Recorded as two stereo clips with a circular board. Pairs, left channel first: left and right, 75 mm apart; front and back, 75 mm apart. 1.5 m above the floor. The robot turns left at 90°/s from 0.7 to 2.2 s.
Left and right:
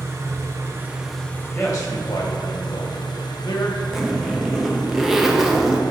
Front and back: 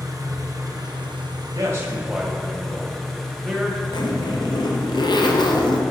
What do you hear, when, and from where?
0.0 s an engine running: 140° right, 0.9 m; by 5.9 s 85° left, 0.9 m
1.5 s a man speaking: 150° left, 1.3 m; by 3.8 s 90° left, 1.3 m
3.9 s a zipper: 5° right, 0.6 m